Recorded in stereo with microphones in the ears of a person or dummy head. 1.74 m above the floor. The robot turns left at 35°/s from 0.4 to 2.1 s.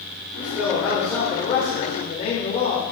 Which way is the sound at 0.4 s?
170° right.